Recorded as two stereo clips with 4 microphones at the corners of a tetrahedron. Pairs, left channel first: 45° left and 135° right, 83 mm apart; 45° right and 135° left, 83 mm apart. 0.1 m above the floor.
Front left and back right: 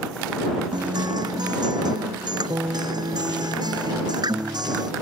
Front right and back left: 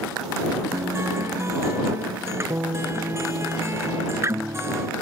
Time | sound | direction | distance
0.7 | a guitar | 170° right | ?